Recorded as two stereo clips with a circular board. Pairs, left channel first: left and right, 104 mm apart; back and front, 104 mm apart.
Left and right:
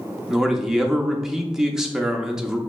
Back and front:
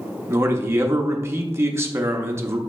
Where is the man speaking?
10° right, 0.5 m.